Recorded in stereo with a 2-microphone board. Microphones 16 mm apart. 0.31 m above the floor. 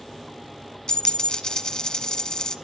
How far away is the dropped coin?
About 0.8 m.